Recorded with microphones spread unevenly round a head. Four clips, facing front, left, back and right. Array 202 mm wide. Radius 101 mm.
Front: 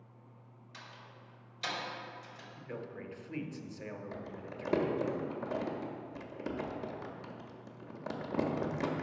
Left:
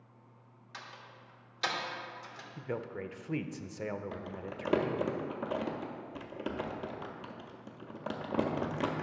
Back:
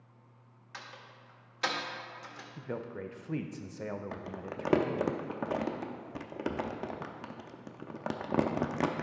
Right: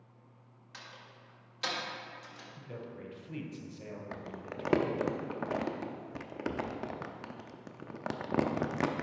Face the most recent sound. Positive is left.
turn(degrees=-155)